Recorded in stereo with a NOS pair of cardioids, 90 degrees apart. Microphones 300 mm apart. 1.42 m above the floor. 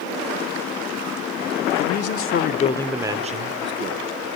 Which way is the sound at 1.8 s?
65° left.